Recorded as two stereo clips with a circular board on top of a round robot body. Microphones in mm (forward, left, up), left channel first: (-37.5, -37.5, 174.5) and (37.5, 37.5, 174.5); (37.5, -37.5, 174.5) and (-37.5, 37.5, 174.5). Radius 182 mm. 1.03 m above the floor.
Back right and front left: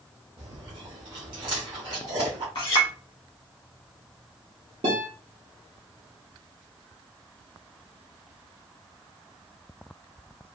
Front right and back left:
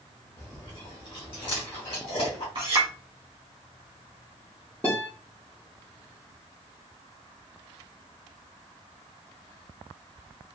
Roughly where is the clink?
Behind.